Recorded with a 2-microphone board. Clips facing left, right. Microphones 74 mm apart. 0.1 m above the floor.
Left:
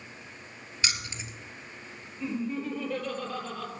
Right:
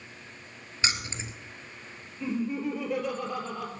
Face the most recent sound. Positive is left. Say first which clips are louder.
# right 2 dB
turn(degrees=-10)  # may be behind; listen again after turning